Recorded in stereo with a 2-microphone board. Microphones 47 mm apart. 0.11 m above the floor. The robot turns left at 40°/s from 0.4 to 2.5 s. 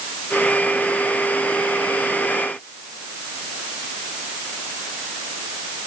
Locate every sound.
Only background noise.